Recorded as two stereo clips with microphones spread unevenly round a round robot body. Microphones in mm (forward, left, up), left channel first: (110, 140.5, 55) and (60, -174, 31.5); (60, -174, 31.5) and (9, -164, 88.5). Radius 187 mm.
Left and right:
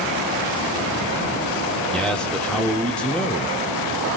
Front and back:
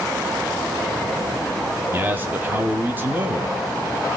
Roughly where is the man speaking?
Ahead.